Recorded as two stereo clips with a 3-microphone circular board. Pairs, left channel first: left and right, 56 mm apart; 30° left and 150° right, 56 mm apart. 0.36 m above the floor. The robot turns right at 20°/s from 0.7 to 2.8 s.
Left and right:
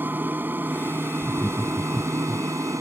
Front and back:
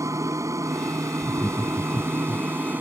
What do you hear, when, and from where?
0.0 s an aircraft: 140° right; by 2.8 s 95° right
1.2 s laughter: 20° right; by 2.5 s 5° left